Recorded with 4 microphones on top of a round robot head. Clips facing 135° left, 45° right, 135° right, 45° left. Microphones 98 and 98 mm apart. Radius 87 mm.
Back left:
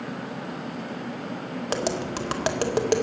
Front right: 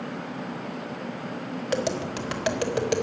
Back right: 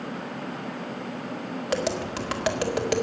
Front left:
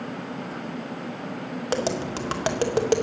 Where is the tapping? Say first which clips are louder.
Even, front left 1 dB; 95° left, 2 m.